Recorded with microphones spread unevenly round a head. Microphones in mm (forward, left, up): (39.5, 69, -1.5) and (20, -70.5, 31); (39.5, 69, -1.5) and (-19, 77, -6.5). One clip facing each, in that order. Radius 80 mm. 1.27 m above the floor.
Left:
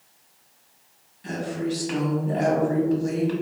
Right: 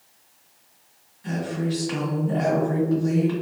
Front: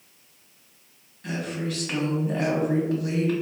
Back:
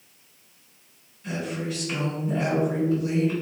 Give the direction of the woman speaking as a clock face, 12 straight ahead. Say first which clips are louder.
Right 1 dB, even; 11 o'clock.